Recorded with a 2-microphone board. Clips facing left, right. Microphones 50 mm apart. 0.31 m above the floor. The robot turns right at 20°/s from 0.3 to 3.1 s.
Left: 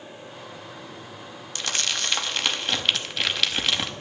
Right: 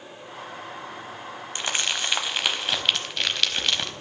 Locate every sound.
1.6 s crumpling: 25° right (ahead or behind), 0.7 m; by 3.9 s 5° left (ahead or behind), 0.7 m